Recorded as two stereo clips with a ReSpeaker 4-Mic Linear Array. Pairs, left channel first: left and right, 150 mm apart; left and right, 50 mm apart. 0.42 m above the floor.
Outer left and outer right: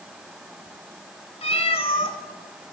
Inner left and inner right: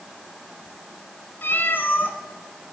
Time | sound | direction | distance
1.4 | a cat meowing | 45° left (ahead or behind) | 1.4 m